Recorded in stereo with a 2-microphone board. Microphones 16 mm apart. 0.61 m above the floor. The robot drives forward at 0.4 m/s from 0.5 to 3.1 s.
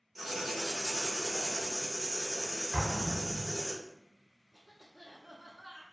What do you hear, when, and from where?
0.1 s writing: 5° left (ahead or behind), 0.9 m; by 3.7 s centre (ahead or behind), 1.7 m
2.7 s an explosion: 60° left (ahead or behind), 0.7 m; by 3.6 s 55° left (ahead or behind), 0.7 m
4.5 s a cough: 20° right (ahead or behind), 0.8 m